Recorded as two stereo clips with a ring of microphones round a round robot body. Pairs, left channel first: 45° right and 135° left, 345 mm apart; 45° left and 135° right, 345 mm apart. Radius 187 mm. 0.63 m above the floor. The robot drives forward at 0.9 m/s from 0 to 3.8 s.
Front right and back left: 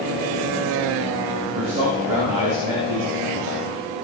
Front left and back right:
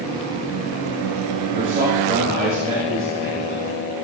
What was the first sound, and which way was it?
A man speaking, 155° left.